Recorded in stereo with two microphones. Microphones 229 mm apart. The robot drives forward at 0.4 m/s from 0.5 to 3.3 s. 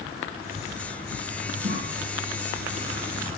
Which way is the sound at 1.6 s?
55° right (ahead or behind).